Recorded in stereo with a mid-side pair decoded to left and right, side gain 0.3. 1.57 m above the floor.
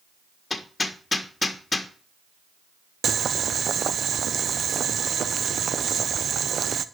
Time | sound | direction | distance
0.5 | hammering | 40° left | 1.5 m
3.0 | boiling | 65° right | 0.7 m